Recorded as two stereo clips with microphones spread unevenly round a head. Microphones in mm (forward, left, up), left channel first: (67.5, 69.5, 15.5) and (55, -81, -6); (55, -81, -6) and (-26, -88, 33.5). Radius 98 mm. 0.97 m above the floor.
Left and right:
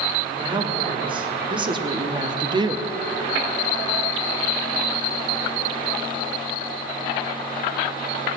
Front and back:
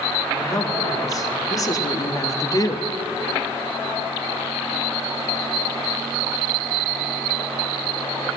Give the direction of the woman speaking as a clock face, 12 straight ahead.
1 o'clock.